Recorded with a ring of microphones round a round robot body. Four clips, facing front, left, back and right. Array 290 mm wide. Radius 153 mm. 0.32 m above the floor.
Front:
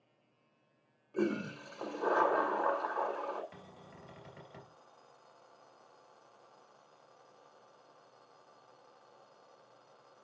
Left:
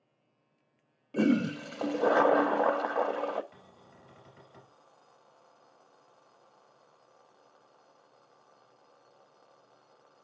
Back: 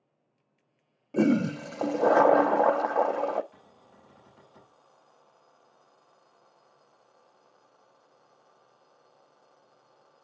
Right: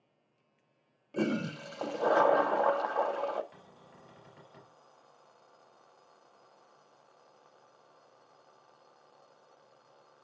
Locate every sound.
1.1 s a toilet flushing: 170° left, 0.5 m
3.5 s a cupboard door: 5° right, 3 m